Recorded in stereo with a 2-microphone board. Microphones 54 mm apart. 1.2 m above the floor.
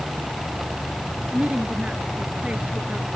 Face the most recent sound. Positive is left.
turn(degrees=-20)  # may be behind; listen again after turning